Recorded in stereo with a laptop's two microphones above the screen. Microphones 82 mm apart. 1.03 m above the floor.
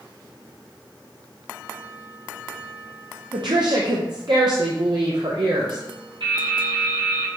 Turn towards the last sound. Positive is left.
turn(degrees=-75)  # may be behind; listen again after turning